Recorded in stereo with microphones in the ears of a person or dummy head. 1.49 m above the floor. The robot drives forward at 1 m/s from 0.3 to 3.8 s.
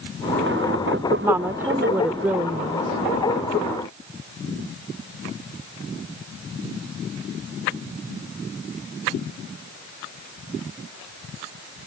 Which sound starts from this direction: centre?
A woman speaking, at 1.2 s.